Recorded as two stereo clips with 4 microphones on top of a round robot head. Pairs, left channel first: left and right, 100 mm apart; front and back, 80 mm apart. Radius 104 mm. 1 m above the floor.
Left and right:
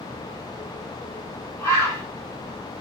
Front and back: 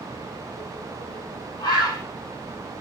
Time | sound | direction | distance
1.6 | a bird | 30° left | 5.5 m